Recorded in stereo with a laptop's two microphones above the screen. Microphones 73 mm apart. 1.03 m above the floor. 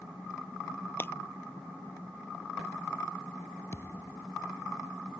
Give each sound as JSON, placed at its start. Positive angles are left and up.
{"t": 1.0, "sound": "breaking glass", "side_deg": 30}
{"t": 3.7, "sound": "a thud", "side_deg": 40}